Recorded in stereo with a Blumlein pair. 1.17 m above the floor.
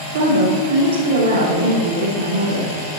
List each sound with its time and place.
0.1 s a woman speaking: 60° right, 2.5 m